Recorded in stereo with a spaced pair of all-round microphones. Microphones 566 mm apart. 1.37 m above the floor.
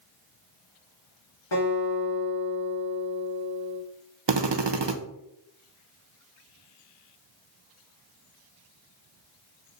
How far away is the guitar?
About 4 m.